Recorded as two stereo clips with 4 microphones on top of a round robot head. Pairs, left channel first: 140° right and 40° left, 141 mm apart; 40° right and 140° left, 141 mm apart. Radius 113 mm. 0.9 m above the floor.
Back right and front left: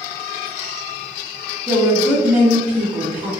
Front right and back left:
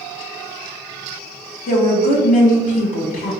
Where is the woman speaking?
40° right, 1.1 m.